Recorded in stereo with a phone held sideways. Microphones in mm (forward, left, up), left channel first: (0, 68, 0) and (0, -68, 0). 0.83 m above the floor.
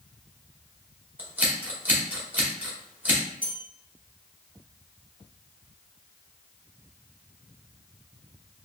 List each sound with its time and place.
1.2 s scissors: 10° right (ahead or behind), 0.9 m
3.4 s a bell: 75° right (ahead or behind), 1.1 m